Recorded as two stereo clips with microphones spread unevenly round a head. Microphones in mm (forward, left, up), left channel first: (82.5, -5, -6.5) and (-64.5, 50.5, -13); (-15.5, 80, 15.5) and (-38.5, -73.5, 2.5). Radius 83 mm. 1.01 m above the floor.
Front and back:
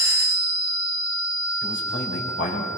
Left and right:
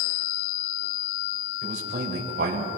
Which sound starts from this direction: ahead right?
A man speaking, at 1.6 s.